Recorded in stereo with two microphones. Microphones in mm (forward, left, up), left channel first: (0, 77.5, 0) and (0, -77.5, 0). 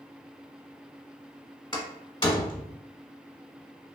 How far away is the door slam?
About 0.9 m.